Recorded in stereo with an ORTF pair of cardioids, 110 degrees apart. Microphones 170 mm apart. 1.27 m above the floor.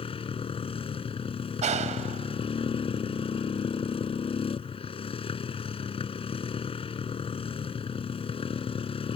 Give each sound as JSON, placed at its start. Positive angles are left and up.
{"t": 0.0, "sound": "a motorcycle", "azimuth_deg": 35}
{"t": 1.6, "sound": "a clap", "azimuth_deg": -45}